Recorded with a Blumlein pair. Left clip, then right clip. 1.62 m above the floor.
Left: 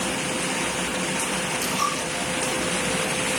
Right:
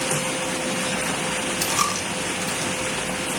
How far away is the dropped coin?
About 4 m.